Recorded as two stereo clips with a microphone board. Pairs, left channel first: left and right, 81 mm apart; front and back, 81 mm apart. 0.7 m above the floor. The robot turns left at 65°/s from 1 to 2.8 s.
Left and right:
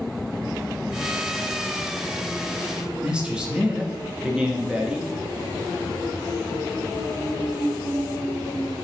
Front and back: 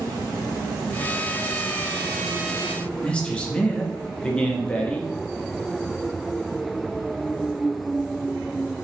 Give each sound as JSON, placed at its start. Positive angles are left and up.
{"t": 3.0, "sound": "a man speaking", "azimuth_deg": -40, "distance_m": 0.6}